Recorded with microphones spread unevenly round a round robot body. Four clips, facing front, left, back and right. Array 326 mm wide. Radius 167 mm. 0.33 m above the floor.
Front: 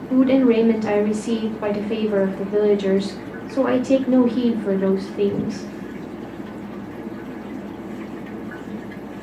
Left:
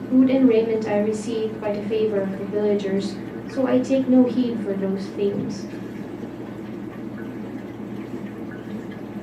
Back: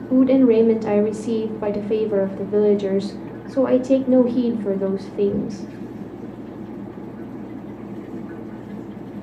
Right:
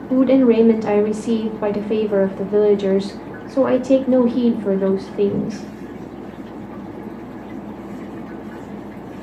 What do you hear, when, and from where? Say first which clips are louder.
0.1 s a woman speaking: right 2 dB, back 1 dB; 115° right, 1.0 m